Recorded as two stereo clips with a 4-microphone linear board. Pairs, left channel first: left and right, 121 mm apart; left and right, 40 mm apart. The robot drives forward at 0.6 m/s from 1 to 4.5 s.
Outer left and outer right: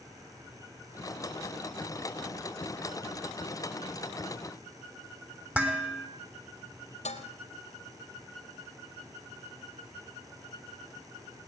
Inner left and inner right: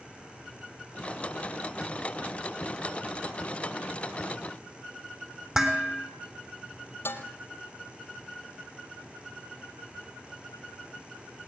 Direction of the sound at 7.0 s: 70° left (ahead or behind).